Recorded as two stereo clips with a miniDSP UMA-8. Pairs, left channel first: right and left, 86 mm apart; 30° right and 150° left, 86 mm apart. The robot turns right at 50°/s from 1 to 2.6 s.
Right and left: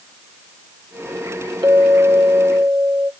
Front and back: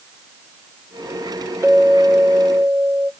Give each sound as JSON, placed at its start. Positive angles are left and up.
{"t": 1.6, "sound": "a clink", "azimuth_deg": 100, "distance_m": 0.9}